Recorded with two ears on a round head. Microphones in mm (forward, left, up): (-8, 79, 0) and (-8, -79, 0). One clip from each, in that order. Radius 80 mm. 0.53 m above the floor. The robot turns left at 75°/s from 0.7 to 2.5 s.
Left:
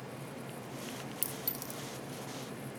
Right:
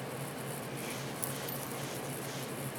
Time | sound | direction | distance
1.2 | a clink | 70° left (ahead or behind) | 7 m